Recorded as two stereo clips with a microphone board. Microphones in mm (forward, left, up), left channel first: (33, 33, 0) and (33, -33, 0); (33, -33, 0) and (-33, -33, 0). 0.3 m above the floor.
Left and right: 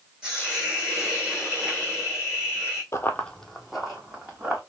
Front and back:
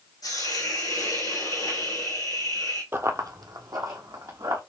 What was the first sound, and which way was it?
A hiss, 10° right.